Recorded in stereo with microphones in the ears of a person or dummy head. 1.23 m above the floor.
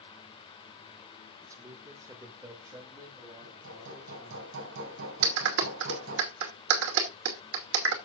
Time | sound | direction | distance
1.4 | a man speaking | 15° right (ahead or behind) | 1.3 m
3.4 | hammering | 75° right (ahead or behind) | 7.5 m
5.2 | a clap | 70° right (ahead or behind) | 2.5 m